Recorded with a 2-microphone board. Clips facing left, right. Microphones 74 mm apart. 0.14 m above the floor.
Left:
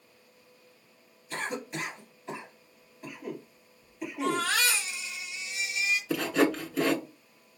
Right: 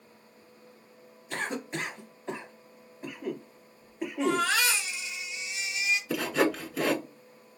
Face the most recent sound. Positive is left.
turn(degrees=-5)  # may be behind; listen again after turning